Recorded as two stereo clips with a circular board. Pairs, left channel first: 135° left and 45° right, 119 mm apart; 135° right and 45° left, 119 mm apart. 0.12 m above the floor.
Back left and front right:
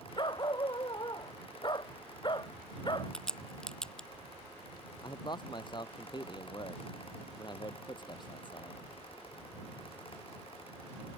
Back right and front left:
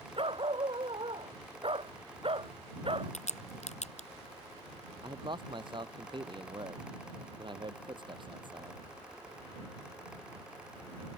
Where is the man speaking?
90° left.